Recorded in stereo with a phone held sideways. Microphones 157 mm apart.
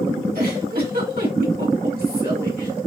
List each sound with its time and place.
0.3 s a giggle: 75° right (ahead or behind), 2 m